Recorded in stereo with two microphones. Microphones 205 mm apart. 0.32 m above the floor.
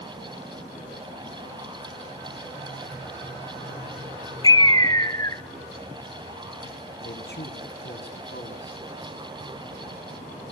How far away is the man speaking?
About 3.5 m.